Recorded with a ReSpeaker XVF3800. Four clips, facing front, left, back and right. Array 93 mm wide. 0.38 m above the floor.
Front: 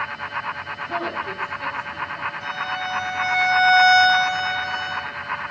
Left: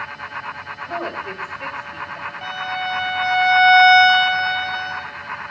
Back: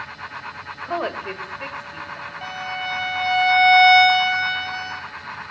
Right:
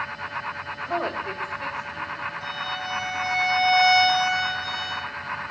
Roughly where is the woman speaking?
Behind.